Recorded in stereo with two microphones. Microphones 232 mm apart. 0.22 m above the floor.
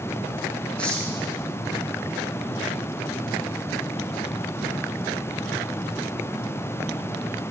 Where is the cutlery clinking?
5° left (ahead or behind), 5.5 m.